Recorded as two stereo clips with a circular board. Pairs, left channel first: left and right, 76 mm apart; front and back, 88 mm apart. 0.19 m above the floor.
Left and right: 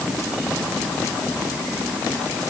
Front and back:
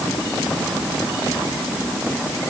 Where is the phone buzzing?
No phone buzzing in this recording.